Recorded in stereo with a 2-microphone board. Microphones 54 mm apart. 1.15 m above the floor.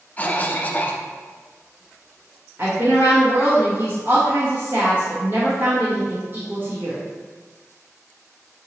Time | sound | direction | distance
0.2 | a cough | 25° left (ahead or behind) | 0.6 m
2.6 | a woman speaking | 40° right (ahead or behind) | 1.5 m